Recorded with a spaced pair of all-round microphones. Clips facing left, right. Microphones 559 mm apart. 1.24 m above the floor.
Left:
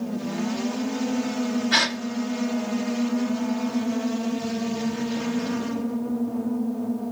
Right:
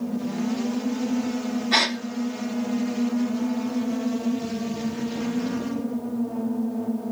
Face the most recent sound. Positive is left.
turn(degrees=35)  # may be behind; listen again after turning